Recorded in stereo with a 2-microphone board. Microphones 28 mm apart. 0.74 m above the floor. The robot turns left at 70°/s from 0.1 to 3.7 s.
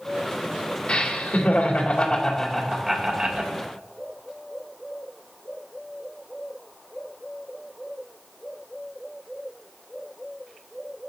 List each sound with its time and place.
0.9 s laughter: 130° left, 2.5 m; by 3.5 s 55° right, 2.5 m